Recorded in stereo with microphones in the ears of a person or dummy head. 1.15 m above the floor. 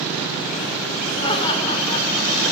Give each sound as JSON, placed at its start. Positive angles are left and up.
{"t": 1.2, "sound": "laughter", "side_deg": 25, "distance_m": 4.5}